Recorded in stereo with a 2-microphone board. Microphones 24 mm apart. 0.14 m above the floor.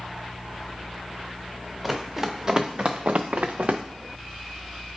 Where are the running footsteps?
15° right (ahead or behind), 1.6 m; by 3.8 s 55° right (ahead or behind), 0.8 m.